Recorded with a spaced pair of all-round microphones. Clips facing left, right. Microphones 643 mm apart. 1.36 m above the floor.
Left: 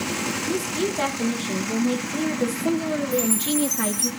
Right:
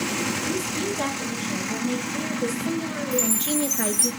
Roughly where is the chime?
Right.